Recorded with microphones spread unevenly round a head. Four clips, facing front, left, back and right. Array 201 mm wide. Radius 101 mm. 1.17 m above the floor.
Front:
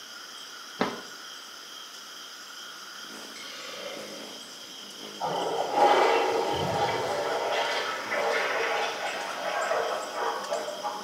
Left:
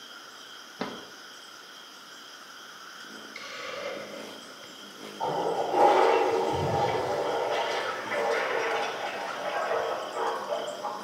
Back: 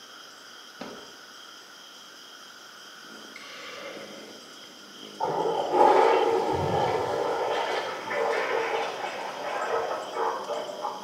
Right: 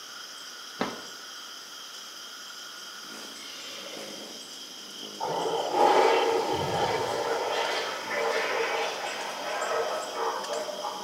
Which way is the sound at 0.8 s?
20° right.